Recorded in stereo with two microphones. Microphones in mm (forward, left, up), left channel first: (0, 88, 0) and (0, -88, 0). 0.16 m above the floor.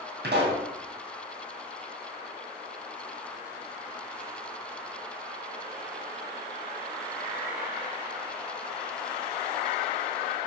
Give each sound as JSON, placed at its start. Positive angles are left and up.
{"t": 0.2, "sound": "a pop", "side_deg": -80, "distance_m": 2.5}